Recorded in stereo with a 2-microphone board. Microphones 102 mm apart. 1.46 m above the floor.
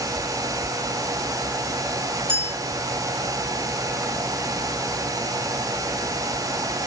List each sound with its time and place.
2.3 s a clink: 65° right (ahead or behind), 2.5 m